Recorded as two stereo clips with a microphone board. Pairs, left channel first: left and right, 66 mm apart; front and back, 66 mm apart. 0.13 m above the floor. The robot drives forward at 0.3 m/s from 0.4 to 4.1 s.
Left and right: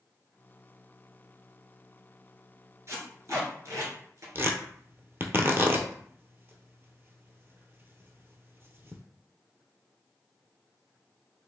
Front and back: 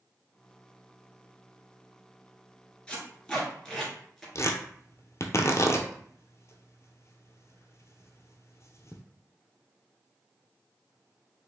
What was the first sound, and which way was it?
Tape being pulled, 70° right.